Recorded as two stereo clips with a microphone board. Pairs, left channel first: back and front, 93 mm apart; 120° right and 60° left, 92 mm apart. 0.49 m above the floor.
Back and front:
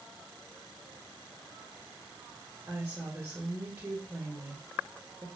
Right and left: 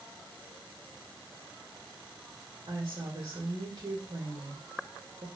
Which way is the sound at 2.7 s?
65° left.